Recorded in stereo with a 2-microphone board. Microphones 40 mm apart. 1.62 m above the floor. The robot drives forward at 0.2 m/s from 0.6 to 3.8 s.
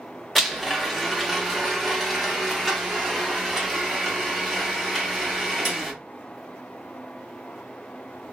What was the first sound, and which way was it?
A blender, centre (ahead or behind).